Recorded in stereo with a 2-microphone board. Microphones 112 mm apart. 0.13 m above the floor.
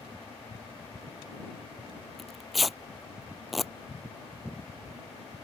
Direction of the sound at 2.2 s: Centre (ahead or behind).